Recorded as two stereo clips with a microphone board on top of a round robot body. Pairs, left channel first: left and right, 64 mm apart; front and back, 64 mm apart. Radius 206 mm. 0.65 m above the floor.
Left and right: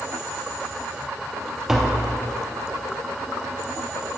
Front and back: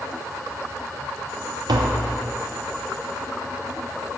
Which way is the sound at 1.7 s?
170° right.